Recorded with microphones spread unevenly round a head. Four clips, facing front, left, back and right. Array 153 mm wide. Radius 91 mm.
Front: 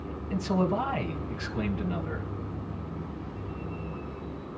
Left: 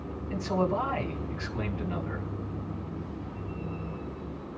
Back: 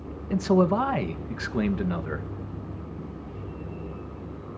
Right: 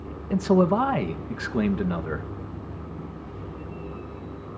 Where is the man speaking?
100° right, 1.6 m.